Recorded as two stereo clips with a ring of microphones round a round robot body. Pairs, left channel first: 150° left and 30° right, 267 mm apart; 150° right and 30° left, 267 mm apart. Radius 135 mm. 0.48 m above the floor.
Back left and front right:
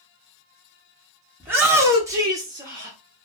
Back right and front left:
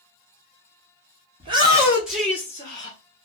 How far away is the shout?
About 1.0 m.